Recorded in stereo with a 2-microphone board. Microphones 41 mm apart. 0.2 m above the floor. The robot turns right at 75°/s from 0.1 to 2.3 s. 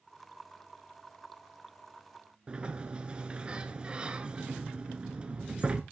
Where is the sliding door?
25° right (ahead or behind), 0.8 m.